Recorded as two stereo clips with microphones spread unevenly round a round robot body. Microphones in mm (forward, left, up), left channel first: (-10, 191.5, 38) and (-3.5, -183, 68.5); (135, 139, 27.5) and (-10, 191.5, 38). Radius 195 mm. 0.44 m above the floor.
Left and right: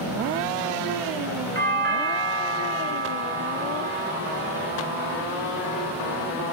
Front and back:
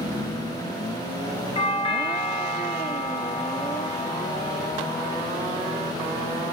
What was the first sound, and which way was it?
A doorbell, 35° right.